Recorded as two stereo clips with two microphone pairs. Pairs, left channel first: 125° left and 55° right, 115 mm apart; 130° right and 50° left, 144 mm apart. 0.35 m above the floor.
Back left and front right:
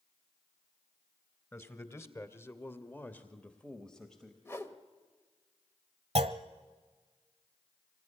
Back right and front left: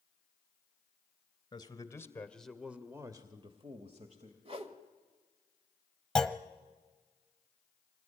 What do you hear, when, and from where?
1.5 s a man speaking: straight behind, 1.7 m; by 4.3 s 40° left, 2.0 m
4.5 s a whoosh: 70° left, 1.3 m
6.2 s a clunk: 50° right, 1.0 m